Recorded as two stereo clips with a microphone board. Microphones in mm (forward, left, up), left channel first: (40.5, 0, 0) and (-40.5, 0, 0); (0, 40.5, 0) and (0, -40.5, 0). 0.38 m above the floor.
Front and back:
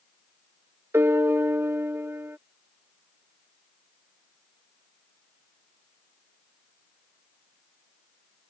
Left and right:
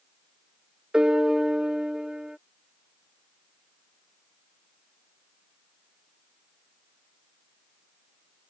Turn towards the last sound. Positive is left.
turn(degrees=-160)